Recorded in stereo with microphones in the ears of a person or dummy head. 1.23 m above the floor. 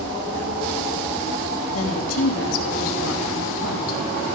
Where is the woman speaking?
80° left, 2.5 m.